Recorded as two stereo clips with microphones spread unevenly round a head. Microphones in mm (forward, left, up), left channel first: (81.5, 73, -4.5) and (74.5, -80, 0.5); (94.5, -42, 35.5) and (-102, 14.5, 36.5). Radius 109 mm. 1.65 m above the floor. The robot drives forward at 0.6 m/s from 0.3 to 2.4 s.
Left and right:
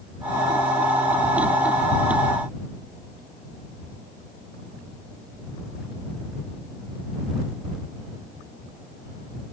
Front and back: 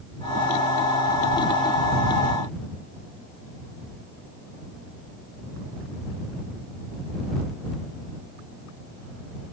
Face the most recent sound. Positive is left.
No sound to turn to.